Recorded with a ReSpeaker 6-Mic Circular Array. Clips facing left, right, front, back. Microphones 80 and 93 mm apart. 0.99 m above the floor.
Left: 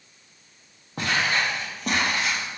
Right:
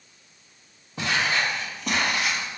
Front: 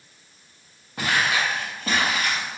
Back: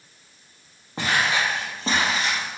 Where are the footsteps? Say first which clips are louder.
Even, even; 125° left, 1.9 m; by 2.6 s 130° left, 1.1 m.